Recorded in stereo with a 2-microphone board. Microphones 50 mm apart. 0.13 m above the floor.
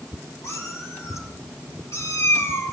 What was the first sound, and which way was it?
A cat meowing, 70° left (ahead or behind).